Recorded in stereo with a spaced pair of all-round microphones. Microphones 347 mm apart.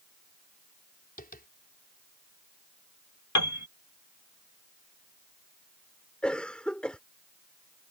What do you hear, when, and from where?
1.2 s tapping: 25° left (ahead or behind)
3.4 s a piano: 50° left (ahead or behind)
6.2 s a cough: 5° left (ahead or behind)